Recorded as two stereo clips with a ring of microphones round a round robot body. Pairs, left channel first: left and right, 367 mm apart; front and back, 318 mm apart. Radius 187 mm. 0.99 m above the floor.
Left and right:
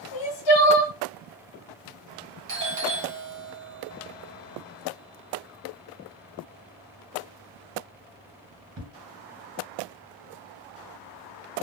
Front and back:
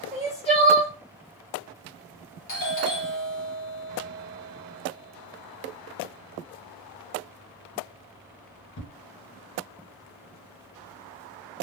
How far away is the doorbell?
About 0.9 m.